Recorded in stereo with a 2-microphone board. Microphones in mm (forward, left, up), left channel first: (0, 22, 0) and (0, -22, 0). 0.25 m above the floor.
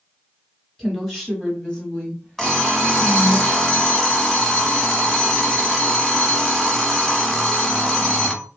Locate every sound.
0.8 s a woman speaking: centre (ahead or behind), 1.6 m; by 3.4 s 40° left (ahead or behind), 1.6 m
2.4 s an alarm clock: 10° left (ahead or behind), 1.0 m